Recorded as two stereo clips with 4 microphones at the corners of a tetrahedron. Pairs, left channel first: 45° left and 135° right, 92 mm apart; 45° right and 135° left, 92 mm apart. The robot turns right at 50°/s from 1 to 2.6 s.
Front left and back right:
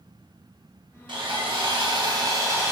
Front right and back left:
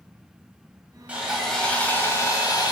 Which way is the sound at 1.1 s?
150° right.